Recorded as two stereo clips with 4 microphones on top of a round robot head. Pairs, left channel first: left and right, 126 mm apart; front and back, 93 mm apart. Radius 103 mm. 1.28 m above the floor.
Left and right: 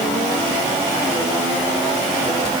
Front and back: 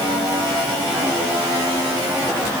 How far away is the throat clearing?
I don't hear throat clearing.